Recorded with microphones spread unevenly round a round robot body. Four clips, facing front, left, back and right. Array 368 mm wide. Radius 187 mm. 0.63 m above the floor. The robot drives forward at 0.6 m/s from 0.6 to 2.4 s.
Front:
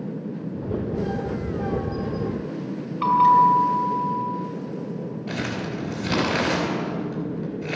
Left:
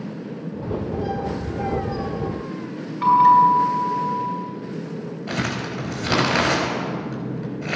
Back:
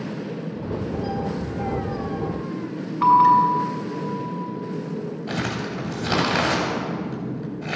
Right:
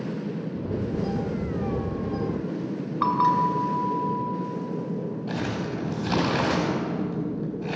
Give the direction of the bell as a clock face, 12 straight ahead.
4 o'clock.